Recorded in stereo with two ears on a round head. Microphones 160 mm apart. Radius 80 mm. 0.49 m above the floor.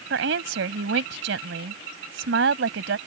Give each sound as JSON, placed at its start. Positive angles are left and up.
{"t": 0.1, "sound": "a woman speaking", "side_deg": -70}